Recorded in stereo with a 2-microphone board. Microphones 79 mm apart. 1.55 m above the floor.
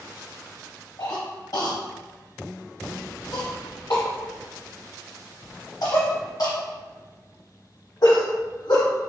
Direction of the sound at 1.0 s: 50° left (ahead or behind).